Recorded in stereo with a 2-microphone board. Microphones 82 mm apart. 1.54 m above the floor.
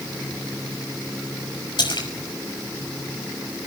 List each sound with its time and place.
1.8 s a splash: 65° left (ahead or behind), 5.5 m